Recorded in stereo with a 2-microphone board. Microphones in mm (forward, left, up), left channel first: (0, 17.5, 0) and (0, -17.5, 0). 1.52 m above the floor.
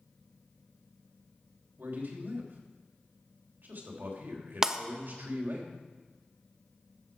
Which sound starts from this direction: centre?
Breaking glass, at 4.6 s.